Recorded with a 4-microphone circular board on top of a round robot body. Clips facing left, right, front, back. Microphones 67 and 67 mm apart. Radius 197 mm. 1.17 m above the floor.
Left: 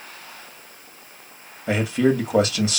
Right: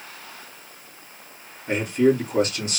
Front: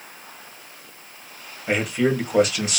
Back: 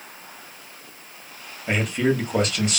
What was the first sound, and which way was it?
A man speaking, 85° left.